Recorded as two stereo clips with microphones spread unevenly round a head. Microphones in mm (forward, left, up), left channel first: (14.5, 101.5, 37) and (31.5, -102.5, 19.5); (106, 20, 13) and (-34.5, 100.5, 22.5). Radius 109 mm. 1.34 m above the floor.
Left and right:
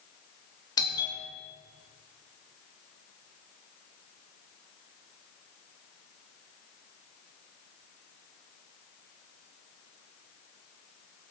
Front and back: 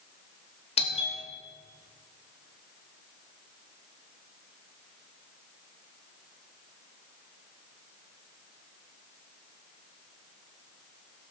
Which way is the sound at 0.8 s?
20° left.